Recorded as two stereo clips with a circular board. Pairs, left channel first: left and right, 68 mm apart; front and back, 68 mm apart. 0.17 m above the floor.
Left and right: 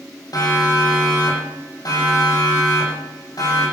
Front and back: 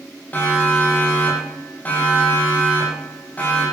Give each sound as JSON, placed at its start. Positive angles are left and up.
{"t": 0.3, "sound": "a siren", "azimuth_deg": 65, "distance_m": 7.5}